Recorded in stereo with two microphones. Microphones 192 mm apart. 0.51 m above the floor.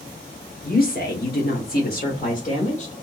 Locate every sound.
0.6 s a woman speaking: 45° left (ahead or behind), 1.1 m; by 2.9 s 35° left (ahead or behind), 1.3 m